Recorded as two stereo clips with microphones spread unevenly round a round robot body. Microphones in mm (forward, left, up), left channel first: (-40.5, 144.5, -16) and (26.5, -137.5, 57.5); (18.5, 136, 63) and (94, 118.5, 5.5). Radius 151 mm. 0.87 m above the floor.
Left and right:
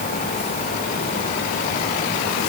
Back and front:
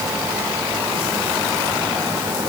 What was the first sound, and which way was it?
Only background noise.